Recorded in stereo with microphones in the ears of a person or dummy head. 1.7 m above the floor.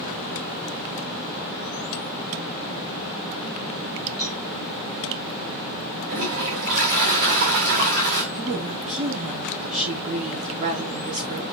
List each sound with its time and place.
4.2 s a cowbell: 5° left (ahead or behind), 4.5 m
6.1 s a toilet flushing: 50° right (ahead or behind), 6 m
8.3 s a woman speaking: 35° right (ahead or behind), 5 m